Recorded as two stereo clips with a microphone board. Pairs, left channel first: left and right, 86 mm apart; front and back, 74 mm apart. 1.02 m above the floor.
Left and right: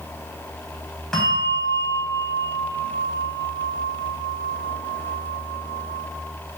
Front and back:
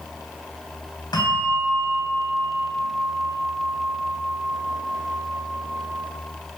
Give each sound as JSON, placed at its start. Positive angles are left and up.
{"t": 1.1, "sound": "a bell", "azimuth_deg": 5, "distance_m": 3.5}